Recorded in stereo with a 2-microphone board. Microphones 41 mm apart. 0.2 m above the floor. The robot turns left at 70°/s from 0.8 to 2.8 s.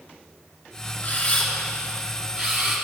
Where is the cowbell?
No cowbell in this recording.